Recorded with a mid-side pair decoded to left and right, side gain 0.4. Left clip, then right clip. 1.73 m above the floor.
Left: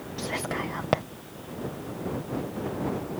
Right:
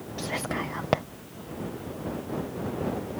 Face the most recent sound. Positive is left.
turn(degrees=-5)